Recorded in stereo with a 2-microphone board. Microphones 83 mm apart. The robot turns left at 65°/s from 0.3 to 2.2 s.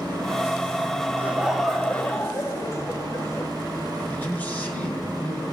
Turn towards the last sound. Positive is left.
turn(degrees=20)  # may be behind; listen again after turning